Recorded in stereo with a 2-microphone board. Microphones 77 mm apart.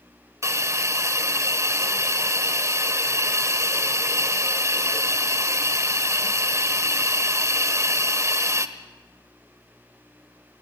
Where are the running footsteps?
No running footsteps in this recording.